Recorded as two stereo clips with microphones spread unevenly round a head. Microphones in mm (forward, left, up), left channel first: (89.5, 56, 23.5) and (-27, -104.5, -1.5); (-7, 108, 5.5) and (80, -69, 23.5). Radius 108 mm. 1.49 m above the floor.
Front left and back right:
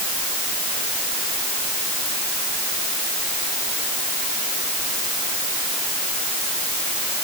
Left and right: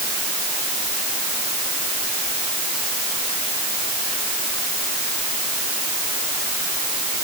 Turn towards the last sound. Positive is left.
No sound to turn to.